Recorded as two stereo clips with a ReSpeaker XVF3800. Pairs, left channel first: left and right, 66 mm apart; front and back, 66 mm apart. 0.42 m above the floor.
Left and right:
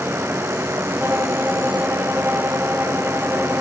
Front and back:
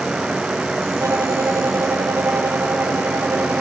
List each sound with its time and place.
1.0 s a violin: 145° right, 1.7 m